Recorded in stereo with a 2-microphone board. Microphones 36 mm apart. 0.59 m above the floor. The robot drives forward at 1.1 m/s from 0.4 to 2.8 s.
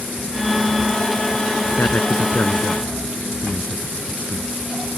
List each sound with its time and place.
1.8 s a man speaking: 60° left (ahead or behind); by 4.5 s 55° left (ahead or behind)